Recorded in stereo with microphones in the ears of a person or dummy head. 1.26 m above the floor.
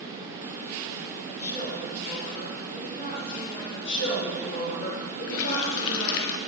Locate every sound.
1.3 s a woman speaking: 40° left (ahead or behind), 3 m
3.7 s a woman speaking: 70° left (ahead or behind), 3 m
5.3 s a running tap: 70° left (ahead or behind), 0.5 m